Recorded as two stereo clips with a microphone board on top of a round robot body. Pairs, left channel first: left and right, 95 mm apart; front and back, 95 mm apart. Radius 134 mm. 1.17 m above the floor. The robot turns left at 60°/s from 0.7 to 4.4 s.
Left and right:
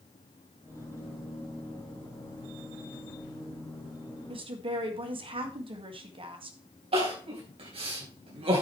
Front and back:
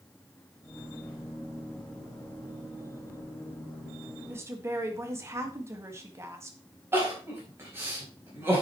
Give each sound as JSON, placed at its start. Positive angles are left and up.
{"t": 4.3, "sound": "a woman speaking", "azimuth_deg": -110, "distance_m": 1.9}
{"t": 6.9, "sound": "crying", "azimuth_deg": -115, "distance_m": 4.0}